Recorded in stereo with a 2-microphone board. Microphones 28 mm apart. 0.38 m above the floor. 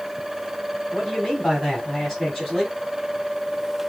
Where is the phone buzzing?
I don't hear a phone buzzing.